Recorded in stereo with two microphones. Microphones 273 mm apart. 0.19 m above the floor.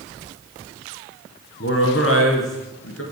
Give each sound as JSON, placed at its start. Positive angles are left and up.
{"t": 1.6, "sound": "a man speaking", "side_deg": 50, "distance_m": 2.0}